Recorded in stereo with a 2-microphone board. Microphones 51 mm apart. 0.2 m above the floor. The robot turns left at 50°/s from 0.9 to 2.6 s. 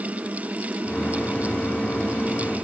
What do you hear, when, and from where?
Only background noise.